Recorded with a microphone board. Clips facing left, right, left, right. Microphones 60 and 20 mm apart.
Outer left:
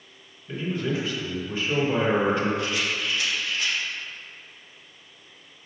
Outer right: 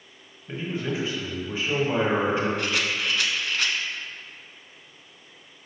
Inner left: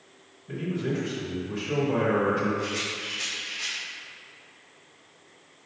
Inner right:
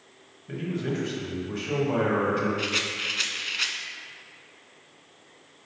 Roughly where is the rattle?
Right.